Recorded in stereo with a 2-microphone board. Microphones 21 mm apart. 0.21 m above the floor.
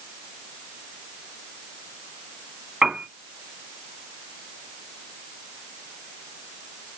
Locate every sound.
2.8 s a piano: 40° right (ahead or behind), 0.6 m